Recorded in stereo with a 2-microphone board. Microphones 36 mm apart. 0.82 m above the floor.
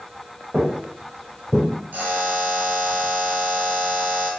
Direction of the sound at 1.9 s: 60° right (ahead or behind).